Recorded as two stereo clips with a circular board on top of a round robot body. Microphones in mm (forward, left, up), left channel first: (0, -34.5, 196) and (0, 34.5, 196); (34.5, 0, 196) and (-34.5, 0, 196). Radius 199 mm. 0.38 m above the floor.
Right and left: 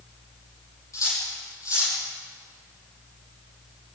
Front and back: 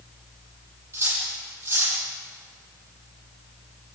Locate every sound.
0.9 s cutlery clinking: 125° right, 9.5 m